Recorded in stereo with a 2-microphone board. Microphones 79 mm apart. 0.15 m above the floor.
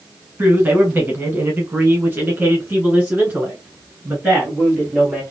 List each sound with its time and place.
0.4 s a man speaking: 25° right (ahead or behind), 1.3 m; by 5.2 s 15° right (ahead or behind), 2.5 m